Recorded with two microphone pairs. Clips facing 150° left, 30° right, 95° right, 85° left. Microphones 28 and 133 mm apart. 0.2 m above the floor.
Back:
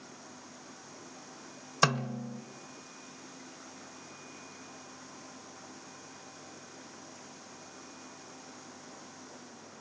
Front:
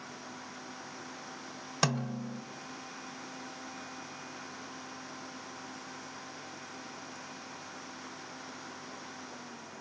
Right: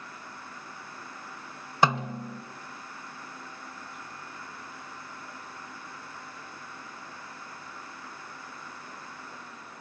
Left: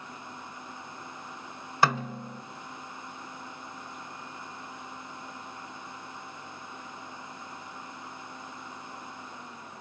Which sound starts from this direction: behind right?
A snare drum, at 1.8 s.